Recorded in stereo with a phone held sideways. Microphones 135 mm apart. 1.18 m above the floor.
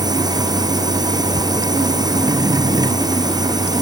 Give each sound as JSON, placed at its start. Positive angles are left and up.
{"t": 0.0, "sound": "a machine running", "side_deg": -30}